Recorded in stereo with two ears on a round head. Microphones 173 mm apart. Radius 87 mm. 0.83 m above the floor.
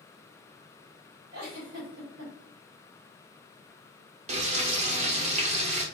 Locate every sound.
1.3 s a giggle: 60° right (ahead or behind), 2.5 m
4.3 s frying: 35° right (ahead or behind), 1.1 m